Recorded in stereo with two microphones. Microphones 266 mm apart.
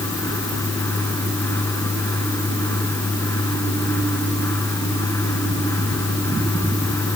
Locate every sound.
Only background noise.